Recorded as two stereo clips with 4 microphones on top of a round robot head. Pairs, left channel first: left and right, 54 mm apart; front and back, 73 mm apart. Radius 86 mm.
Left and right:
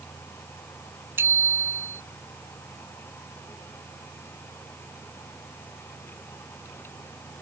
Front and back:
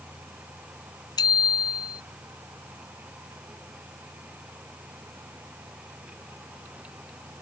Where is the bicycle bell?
35° right.